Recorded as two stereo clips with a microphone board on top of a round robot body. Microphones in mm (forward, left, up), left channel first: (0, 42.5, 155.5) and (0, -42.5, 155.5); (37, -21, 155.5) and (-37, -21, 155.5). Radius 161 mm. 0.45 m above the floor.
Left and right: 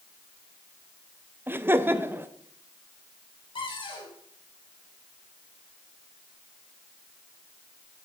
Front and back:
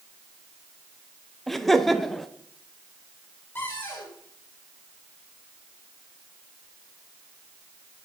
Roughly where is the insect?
No insect in this recording.